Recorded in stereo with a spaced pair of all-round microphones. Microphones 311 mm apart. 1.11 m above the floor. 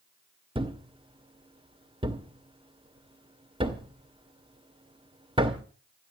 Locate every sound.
0.6 s a thud: 15° right (ahead or behind), 1.9 m